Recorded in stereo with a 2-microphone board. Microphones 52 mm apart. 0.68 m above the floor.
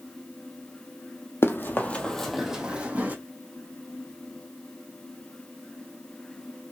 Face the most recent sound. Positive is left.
turn(degrees=-30)  # may be behind; listen again after turning